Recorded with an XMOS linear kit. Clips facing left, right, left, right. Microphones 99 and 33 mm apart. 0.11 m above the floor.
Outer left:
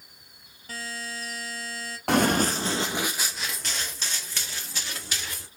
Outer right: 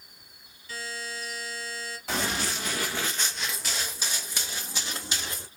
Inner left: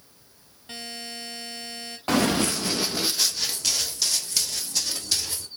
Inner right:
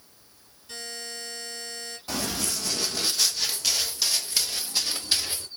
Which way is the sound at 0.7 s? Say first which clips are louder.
Outer left 1 dB, inner left 1 dB; 45° left (ahead or behind).